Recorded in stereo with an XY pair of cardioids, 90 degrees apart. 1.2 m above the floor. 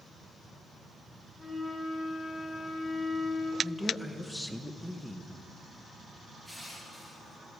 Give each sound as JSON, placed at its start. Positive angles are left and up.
{"t": 1.4, "sound": "a flute", "azimuth_deg": -15, "distance_m": 3.0}
{"t": 3.6, "sound": "a man speaking", "azimuth_deg": 0, "distance_m": 0.9}
{"t": 6.5, "sound": "crushing", "azimuth_deg": -5, "distance_m": 2.0}